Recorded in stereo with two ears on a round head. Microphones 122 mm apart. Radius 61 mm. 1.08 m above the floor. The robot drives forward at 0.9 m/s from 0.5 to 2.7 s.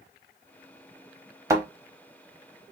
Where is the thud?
25° right (ahead or behind), 0.9 m.